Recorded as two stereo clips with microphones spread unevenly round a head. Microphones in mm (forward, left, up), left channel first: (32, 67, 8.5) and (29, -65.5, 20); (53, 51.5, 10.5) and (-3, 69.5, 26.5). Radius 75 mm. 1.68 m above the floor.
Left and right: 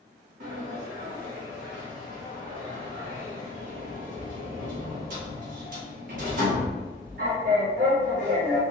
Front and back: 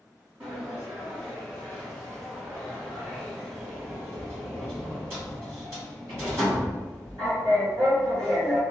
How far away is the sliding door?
About 0.7 m.